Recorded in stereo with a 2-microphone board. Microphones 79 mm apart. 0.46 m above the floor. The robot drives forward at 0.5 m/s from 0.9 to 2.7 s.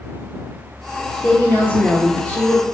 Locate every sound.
1.2 s a woman speaking: 20° left (ahead or behind), 0.8 m; by 2.6 s 15° left (ahead or behind), 1.1 m